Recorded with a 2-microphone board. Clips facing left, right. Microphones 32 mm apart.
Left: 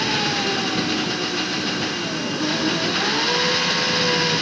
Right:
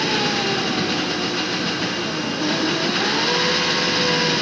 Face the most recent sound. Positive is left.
turn(degrees=0)  # may be behind; listen again after turning